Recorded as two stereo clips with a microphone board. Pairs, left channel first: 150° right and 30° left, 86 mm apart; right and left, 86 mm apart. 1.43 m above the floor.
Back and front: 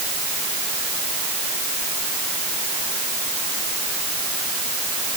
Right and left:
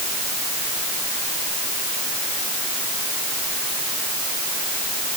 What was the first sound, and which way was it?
Only background noise.